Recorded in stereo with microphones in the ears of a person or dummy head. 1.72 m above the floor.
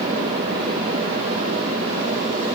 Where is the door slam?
No door slam in this recording.